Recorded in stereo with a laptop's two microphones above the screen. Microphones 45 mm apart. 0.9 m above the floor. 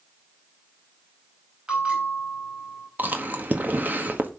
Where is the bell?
25° right (ahead or behind), 4.5 m.